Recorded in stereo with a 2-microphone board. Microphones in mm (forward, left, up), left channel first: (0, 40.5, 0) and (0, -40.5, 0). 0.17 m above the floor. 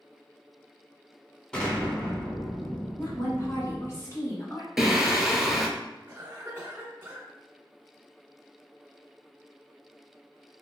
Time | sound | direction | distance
1.5 | an explosion | 10° left (ahead or behind) | 1.4 m
3.0 | a woman speaking | 35° left (ahead or behind) | 1.6 m
4.8 | singing | 5° right (ahead or behind) | 0.7 m
6.1 | a cough | 25° right (ahead or behind) | 1.7 m